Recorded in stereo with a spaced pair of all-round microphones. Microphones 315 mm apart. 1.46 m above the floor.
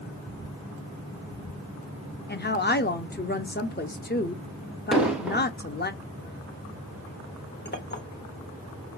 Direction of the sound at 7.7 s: 30° left (ahead or behind).